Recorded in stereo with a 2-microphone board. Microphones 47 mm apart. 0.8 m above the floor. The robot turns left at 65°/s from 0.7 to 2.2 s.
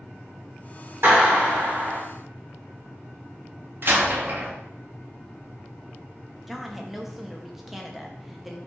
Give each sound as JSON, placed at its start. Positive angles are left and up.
{"t": 1.0, "sound": "a clap", "azimuth_deg": -65, "distance_m": 2.0}
{"t": 3.8, "sound": "a door slam", "side_deg": -50, "distance_m": 0.7}
{"t": 6.5, "sound": "a woman speaking", "side_deg": -5, "distance_m": 0.6}